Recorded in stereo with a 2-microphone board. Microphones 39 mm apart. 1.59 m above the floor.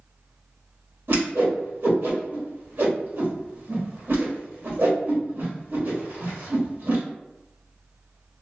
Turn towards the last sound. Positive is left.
turn(degrees=-55)  # may be behind; listen again after turning